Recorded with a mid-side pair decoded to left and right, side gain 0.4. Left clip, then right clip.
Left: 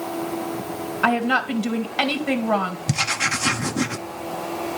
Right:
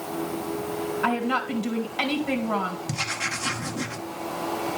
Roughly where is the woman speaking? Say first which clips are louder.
Left 6 dB; ahead left.